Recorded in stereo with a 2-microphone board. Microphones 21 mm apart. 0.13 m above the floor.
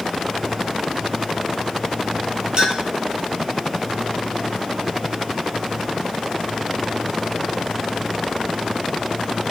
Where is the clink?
40° right (ahead or behind), 1.8 m.